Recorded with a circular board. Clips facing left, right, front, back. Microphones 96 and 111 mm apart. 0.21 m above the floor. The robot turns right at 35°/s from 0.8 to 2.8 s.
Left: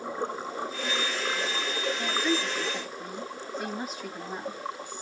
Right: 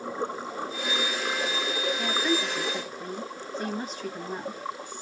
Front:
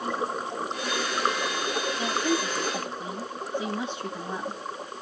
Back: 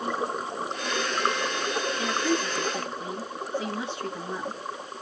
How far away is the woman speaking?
About 1.1 m.